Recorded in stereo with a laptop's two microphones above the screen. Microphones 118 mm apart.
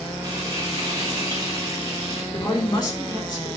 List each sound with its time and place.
0.2 s frying: 30° right (ahead or behind), 3.5 m
2.3 s a woman speaking: 30° left (ahead or behind), 3.5 m